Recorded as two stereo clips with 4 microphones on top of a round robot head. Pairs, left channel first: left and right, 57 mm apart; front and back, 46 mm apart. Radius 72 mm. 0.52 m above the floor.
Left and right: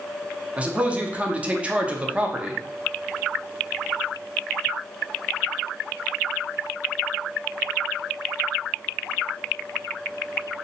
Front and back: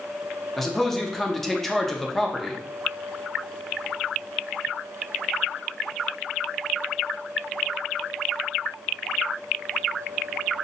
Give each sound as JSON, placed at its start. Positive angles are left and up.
{"t": 0.6, "sound": "a man speaking", "azimuth_deg": -70, "distance_m": 0.7}